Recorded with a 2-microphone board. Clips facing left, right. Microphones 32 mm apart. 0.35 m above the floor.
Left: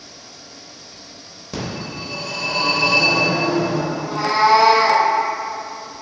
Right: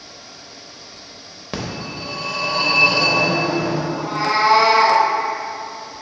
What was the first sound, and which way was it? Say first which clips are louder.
A phone ringing: even; 45° right (ahead or behind).